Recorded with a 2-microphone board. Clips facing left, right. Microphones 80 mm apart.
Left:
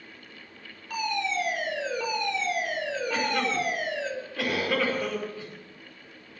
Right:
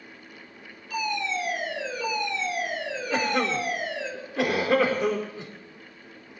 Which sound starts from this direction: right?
A cough, at 3.1 s.